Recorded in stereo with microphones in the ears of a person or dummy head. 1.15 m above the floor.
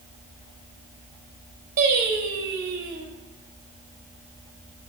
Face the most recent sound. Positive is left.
turn(degrees=-45)  # may be behind; listen again after turning